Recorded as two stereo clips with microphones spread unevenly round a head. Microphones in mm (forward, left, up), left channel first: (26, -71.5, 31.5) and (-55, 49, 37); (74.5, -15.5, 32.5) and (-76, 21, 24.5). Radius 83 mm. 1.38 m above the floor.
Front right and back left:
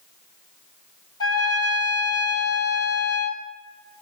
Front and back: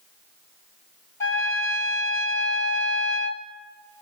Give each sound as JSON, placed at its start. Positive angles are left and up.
{"t": 1.2, "sound": "a trumpet", "azimuth_deg": -40, "distance_m": 1.1}